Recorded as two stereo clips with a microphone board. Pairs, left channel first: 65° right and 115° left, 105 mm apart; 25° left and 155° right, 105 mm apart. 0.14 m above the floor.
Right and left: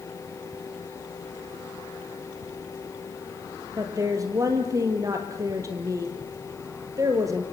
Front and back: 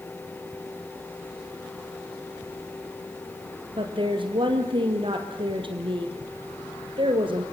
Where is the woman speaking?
170° left, 3 m.